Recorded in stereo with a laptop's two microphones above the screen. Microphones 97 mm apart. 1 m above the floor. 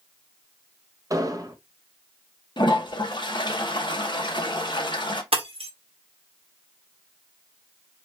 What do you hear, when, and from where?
1.1 s an explosion: 35° right (ahead or behind), 0.6 m
2.6 s a toilet flushing: 55° left (ahead or behind), 0.9 m
5.3 s breaking glass: 80° right, 1.0 m